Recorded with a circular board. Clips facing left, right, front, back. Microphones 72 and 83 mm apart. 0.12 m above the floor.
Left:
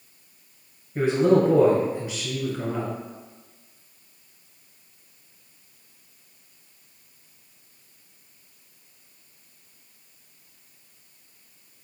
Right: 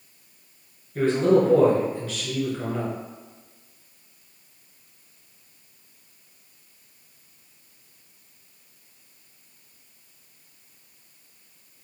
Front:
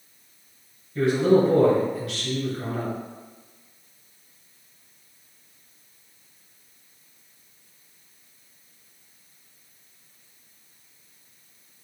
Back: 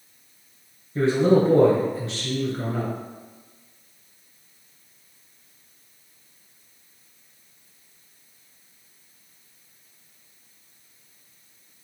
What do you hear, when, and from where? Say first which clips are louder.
0.9 s a man speaking: even, even; 150° left, 1.5 m